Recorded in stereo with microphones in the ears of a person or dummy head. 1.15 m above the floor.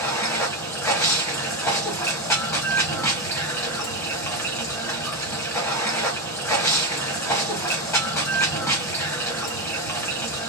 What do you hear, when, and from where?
0.0 s running water: 10° left (ahead or behind), 1.0 m